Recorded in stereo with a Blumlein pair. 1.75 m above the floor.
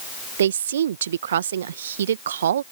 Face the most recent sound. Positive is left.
turn(degrees=-60)